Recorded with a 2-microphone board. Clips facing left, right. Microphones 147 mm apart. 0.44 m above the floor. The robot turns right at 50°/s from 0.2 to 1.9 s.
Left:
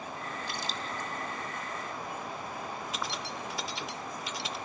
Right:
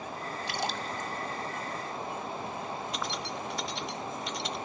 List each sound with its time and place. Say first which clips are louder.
0.5 s a splash: right 6 dB; 75° right (ahead or behind), 1.7 m; by 1.1 s 45° right (ahead or behind), 1.7 m
2.9 s keys jangling: right 2 dB; centre (ahead or behind), 0.6 m